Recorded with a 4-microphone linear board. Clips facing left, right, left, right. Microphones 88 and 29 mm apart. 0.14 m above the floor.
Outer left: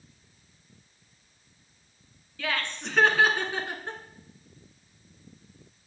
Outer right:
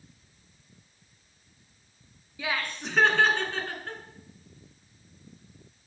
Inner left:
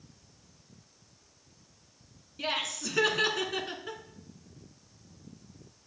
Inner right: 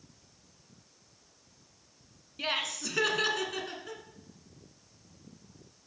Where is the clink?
No clink in this recording.